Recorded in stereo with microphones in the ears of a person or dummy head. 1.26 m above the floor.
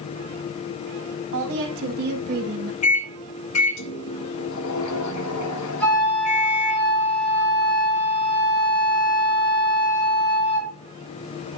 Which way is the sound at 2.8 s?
80° left.